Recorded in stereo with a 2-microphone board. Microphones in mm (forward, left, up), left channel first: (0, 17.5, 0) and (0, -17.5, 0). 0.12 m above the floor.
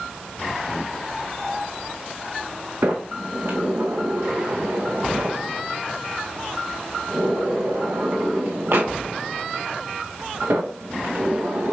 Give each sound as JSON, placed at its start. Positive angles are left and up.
{"t": 2.8, "sound": "a sliding door", "side_deg": -80, "distance_m": 2.5}